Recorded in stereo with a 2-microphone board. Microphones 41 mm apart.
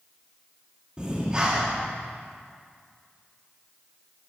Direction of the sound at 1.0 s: 20° right (ahead or behind).